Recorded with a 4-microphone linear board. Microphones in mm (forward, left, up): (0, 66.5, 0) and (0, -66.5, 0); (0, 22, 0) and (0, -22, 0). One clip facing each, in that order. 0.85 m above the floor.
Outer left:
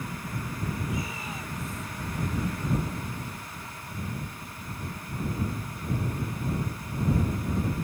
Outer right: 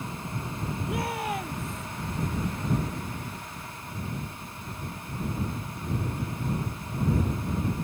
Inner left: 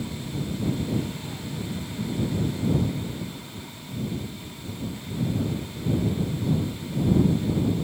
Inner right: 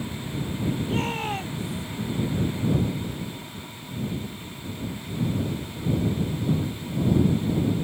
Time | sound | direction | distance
0.9 | a shout | 65° right (ahead or behind) | ?